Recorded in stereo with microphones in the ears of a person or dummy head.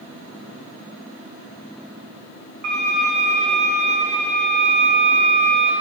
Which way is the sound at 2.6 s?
50° right (ahead or behind).